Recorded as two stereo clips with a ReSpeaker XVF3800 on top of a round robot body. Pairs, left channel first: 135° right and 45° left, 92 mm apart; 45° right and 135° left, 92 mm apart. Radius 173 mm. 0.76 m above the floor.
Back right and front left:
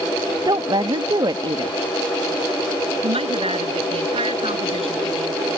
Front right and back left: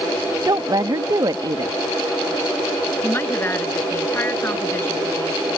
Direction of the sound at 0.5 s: 85° left.